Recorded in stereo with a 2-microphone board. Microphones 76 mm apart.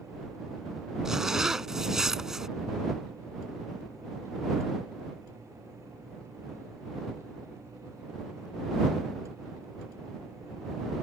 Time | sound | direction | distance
1.1 | a zipper | 5° right (ahead or behind) | ?